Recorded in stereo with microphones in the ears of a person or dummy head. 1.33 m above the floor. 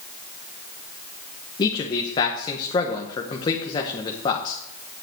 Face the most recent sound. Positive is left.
turn(degrees=25)  # may be behind; listen again after turning